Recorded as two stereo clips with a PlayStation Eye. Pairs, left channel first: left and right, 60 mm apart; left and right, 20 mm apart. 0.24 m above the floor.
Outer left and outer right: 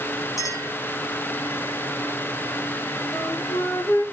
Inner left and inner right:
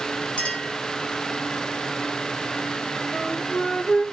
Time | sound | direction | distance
0.4 | a clink | 70° left (ahead or behind) | 6.5 m
3.1 | a flute | 70° left (ahead or behind) | 4.5 m